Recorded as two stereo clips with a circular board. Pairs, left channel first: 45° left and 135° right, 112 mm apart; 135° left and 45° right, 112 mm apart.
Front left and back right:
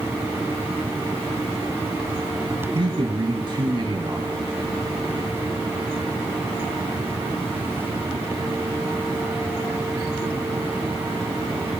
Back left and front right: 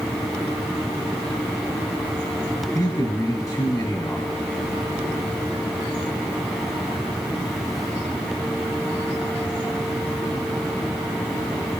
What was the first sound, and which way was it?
A man speaking, 170° right.